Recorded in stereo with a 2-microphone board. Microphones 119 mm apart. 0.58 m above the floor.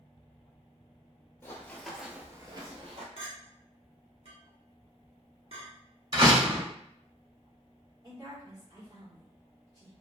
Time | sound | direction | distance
1.4 | running footsteps | 20° left (ahead or behind) | 0.9 m
3.2 | a clink | 55° right (ahead or behind) | 0.9 m
6.1 | a door slam | 40° right (ahead or behind) | 0.9 m
8.0 | a woman speaking | 35° right (ahead or behind) | 1.7 m